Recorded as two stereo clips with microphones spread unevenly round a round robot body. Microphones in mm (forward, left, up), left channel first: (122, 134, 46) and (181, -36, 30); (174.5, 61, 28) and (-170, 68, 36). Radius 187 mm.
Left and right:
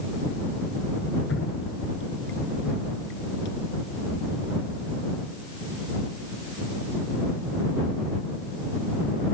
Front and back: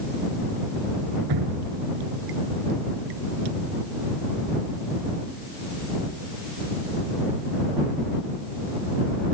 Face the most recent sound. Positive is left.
turn(degrees=160)